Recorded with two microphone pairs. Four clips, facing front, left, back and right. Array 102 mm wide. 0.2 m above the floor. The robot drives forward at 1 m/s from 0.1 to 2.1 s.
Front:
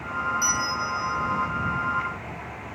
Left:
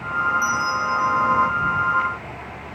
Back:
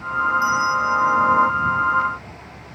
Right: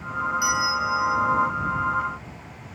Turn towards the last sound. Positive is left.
turn(degrees=-140)